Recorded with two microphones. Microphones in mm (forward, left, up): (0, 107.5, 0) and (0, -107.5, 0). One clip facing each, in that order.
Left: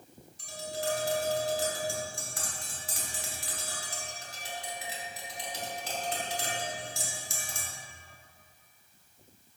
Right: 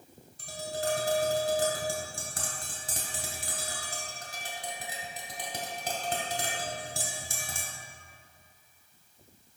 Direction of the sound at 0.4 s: 55° right (ahead or behind).